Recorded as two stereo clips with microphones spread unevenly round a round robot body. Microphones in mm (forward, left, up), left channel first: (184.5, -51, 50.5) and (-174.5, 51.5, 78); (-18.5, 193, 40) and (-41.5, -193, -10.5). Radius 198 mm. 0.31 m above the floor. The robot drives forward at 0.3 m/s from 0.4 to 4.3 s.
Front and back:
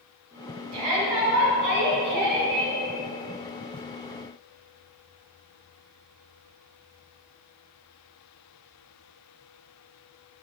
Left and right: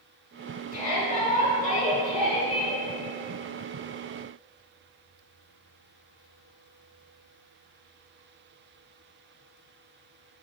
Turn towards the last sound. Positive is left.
turn(degrees=165)